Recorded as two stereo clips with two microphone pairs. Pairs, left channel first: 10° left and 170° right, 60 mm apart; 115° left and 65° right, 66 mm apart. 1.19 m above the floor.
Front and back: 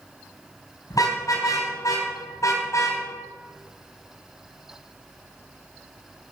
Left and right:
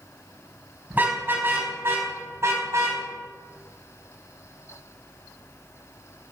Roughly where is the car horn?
Ahead.